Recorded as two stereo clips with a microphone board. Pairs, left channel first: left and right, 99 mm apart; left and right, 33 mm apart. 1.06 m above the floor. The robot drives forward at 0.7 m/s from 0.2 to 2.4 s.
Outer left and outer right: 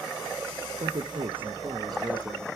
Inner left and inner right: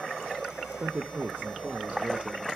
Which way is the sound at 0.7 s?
75° right (ahead or behind).